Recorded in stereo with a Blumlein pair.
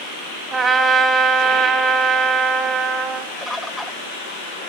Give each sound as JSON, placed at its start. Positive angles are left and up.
{"t": 0.5, "sound": "a trumpet", "azimuth_deg": -20, "distance_m": 1.6}
{"t": 3.4, "sound": "a bird", "azimuth_deg": 0, "distance_m": 0.9}